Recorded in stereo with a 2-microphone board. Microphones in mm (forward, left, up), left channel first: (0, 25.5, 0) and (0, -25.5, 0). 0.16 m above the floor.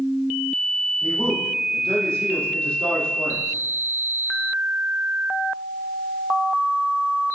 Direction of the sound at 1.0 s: 20° left (ahead or behind).